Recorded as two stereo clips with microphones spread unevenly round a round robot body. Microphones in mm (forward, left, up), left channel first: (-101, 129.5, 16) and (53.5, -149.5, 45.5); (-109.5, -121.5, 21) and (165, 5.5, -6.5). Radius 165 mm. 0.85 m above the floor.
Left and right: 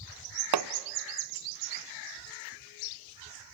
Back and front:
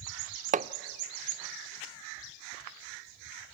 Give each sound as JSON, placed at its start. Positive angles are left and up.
{"t": 0.5, "sound": "hammering", "azimuth_deg": -40, "distance_m": 0.6}